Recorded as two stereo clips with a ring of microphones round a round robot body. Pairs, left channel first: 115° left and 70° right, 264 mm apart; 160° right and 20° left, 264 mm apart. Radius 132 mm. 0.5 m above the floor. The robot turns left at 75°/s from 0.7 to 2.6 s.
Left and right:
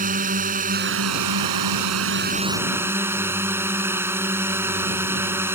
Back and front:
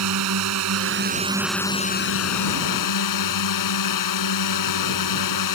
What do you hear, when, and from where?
0.0 s a drone: 5° right; by 5.5 s 150° right